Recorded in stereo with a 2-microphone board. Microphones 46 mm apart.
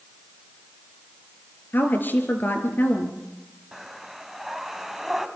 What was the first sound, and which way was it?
A woman speaking, 45° left (ahead or behind).